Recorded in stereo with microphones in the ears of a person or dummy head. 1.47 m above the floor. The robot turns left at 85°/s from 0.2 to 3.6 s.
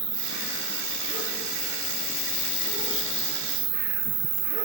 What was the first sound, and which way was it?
An insect, 110° right.